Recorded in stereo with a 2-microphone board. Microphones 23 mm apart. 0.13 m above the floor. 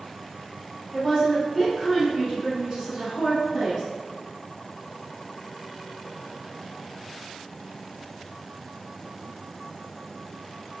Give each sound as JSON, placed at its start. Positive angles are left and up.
{"t": 0.9, "sound": "a woman speaking", "side_deg": 5, "distance_m": 1.9}